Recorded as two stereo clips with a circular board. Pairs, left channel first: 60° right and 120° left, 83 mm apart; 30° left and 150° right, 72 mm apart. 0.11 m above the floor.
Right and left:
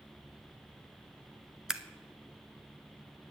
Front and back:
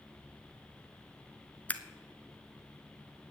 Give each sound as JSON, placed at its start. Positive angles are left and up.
{"t": 1.7, "sound": "scissors", "azimuth_deg": 45, "distance_m": 0.6}